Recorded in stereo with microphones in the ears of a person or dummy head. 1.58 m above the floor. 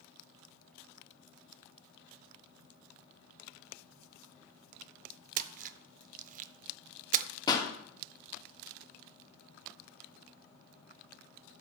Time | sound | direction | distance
5.4 | a splash | 50° right (ahead or behind) | 0.6 m
7.5 | a pop | 20° left (ahead or behind) | 1.6 m